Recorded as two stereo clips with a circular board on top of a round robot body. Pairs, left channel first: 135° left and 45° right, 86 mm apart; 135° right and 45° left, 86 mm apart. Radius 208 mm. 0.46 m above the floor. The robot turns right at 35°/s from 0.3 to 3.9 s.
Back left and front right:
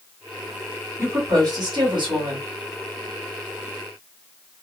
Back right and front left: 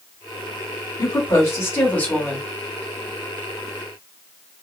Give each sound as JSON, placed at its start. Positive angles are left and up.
{"t": 1.0, "sound": "a woman speaking", "azimuth_deg": -95, "distance_m": 1.9}